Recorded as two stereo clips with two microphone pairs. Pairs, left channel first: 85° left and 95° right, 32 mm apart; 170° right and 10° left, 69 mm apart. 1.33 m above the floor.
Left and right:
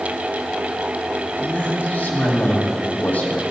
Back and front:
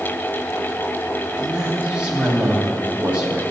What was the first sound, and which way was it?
A man speaking, 85° left.